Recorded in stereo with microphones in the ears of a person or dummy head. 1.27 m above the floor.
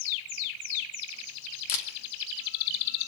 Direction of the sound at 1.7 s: 75° left (ahead or behind).